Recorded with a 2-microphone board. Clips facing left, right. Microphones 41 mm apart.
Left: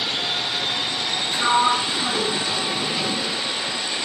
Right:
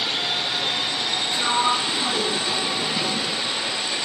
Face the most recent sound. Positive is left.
turn(degrees=35)  # may be behind; listen again after turning